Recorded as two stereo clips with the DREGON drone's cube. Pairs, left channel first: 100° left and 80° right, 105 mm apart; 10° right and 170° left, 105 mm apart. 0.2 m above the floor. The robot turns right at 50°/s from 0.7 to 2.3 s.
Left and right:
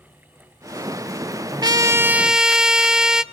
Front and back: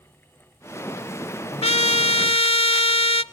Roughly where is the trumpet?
Ahead right.